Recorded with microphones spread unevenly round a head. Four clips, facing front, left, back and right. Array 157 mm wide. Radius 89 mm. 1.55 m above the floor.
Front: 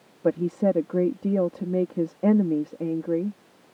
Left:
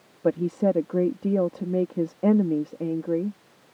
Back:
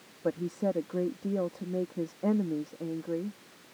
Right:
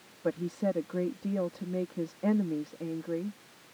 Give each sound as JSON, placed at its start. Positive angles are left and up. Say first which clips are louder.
{"t": 0.2, "sound": "a woman speaking", "louder": "left 8 dB, front 8 dB", "azimuth_deg": 45}